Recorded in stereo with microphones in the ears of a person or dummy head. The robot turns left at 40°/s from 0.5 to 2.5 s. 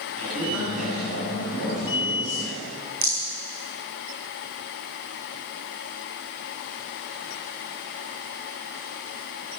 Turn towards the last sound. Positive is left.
turn(degrees=-45)  # may be behind; listen again after turning